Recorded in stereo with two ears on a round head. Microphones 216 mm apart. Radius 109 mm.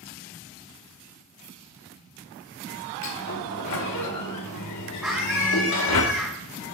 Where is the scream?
5° right (ahead or behind), 1.5 m.